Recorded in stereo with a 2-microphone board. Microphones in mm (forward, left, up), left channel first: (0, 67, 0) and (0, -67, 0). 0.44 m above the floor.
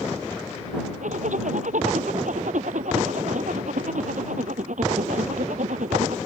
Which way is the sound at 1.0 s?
70° right (ahead or behind).